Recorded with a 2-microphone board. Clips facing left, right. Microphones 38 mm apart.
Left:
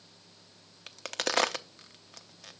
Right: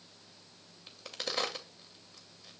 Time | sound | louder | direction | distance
0.9 | a crack | left 7 dB | 80° left | 0.7 m